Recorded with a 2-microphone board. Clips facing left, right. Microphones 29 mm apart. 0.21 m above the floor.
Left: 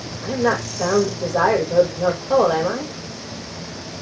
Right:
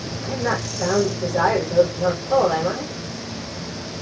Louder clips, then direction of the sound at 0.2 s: Left 4 dB; 65° left (ahead or behind).